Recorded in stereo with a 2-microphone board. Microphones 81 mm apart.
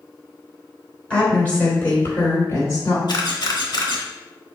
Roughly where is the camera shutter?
Left.